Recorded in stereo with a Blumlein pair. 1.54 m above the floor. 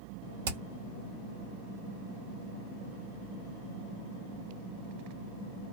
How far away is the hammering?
About 1.3 m.